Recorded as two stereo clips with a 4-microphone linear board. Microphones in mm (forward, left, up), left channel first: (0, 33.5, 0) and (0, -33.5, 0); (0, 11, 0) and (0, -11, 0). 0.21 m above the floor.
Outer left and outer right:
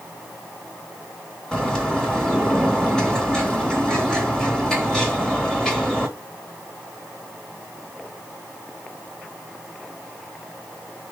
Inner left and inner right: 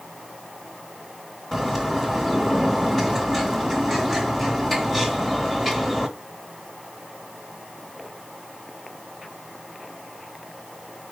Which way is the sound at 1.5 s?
5° left (ahead or behind).